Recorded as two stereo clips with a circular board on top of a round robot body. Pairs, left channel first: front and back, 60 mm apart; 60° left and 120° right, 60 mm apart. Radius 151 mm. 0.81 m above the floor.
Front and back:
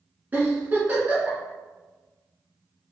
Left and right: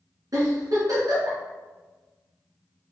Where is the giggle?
125° right, 1.8 m.